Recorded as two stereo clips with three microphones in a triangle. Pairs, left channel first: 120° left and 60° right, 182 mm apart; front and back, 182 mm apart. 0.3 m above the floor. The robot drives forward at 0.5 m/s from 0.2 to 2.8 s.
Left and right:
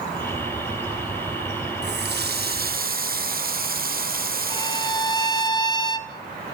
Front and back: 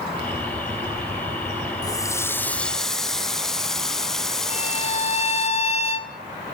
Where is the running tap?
70° right, 1.6 m; by 5.5 s 85° right, 1.5 m.